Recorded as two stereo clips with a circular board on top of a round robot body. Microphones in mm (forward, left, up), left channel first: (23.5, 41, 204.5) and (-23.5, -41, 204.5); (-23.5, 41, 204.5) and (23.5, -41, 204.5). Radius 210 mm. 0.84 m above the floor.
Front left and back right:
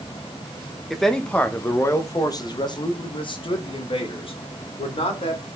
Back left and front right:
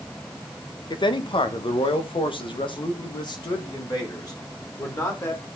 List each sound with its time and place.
0.9 s a man speaking: 150° left, 1.6 m; by 5.5 s 65° left, 3.5 m